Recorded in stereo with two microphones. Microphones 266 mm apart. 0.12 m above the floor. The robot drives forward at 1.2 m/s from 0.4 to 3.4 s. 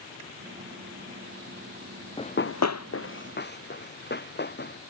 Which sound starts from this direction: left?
Running footsteps, at 2.2 s.